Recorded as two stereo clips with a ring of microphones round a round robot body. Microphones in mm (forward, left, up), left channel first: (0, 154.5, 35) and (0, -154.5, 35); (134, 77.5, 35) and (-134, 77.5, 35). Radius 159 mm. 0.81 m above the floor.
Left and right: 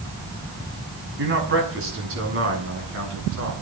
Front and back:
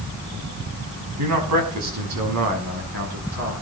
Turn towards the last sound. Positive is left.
turn(degrees=-135)